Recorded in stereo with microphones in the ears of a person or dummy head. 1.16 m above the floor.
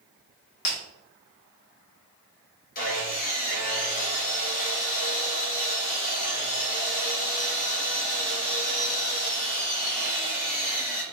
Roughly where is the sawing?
Left.